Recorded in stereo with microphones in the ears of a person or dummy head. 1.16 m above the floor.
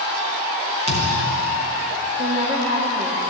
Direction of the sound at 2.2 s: 25° right (ahead or behind).